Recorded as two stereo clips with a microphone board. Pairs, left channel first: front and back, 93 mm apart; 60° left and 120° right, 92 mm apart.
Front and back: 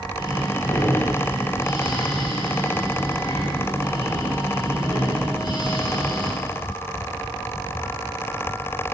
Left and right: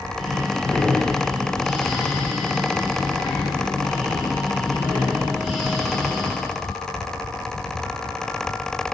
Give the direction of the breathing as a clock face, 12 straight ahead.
1 o'clock.